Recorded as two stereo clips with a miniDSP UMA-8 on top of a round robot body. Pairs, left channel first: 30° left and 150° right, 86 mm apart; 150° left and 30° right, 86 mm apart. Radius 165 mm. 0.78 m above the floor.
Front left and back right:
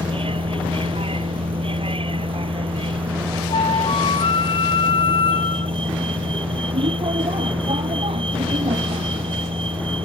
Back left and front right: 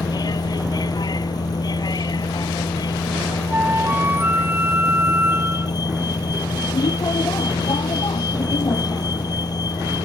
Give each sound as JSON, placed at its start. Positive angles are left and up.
{"t": 0.0, "sound": "a vehicle", "azimuth_deg": -165}
{"t": 3.5, "sound": "a flute", "azimuth_deg": 35}